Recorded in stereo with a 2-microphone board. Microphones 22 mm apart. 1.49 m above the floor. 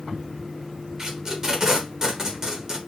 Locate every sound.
1.0 s tape being pulled: 25° right (ahead or behind), 0.8 m